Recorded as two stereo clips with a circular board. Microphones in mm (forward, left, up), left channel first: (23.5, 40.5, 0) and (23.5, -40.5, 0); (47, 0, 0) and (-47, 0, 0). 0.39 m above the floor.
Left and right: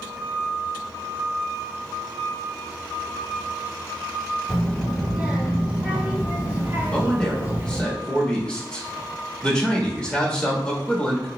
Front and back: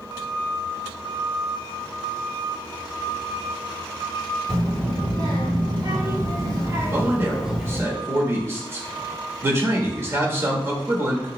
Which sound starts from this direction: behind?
A child speaking, at 4.5 s.